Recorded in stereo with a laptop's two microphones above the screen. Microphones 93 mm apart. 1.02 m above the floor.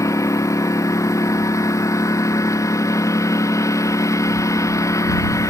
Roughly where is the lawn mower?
Left.